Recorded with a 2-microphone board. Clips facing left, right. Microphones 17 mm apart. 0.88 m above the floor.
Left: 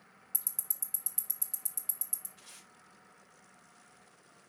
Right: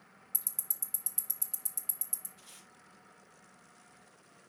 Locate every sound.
0.3 s ticking: centre (ahead or behind), 1.2 m
2.4 s tape being pulled: 35° left (ahead or behind), 3 m